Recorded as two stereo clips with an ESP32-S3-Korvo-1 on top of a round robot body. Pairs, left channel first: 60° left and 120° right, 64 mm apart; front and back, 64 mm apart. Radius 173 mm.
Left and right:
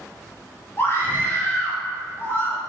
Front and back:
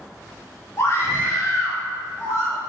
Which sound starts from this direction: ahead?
A scream, at 0.8 s.